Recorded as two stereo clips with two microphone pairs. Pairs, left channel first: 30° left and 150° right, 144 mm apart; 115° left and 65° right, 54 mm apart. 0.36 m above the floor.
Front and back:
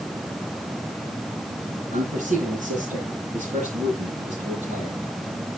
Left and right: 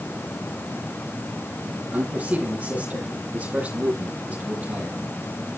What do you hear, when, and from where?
1.9 s a man speaking: 125° right, 9 m; by 5.0 s 115° right, 8 m